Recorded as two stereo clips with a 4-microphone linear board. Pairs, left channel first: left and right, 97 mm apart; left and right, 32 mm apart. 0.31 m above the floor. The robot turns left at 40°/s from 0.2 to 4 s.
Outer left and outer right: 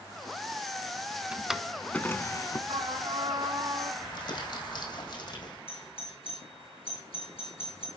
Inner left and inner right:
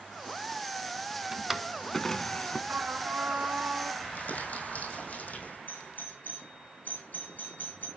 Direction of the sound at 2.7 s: 80° right.